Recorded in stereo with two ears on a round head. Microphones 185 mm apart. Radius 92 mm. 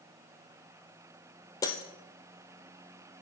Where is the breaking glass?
15° left (ahead or behind), 1.4 m.